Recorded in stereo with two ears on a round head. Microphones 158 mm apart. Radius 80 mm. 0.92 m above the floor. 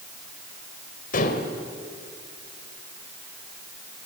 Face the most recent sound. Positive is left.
turn(degrees=50)  # may be behind; listen again after turning